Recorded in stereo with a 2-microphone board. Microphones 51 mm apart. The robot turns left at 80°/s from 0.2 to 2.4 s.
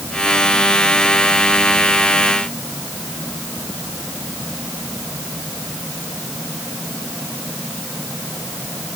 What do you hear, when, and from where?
Only background noise.